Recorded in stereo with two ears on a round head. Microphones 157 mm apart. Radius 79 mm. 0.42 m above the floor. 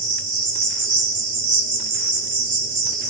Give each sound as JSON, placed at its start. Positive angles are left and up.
{"t": 0.0, "sound": "an insect", "side_deg": -45, "distance_m": 1.4}